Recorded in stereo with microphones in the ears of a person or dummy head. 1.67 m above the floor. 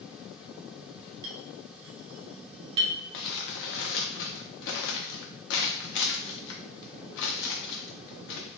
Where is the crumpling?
65° left (ahead or behind), 0.5 m.